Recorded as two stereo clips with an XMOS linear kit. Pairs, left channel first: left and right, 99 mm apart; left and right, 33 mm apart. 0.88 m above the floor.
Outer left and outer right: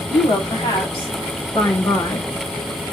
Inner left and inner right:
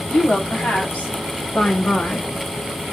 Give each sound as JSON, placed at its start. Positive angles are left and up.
{"t": 0.1, "sound": "a woman speaking", "side_deg": 70, "distance_m": 2.5}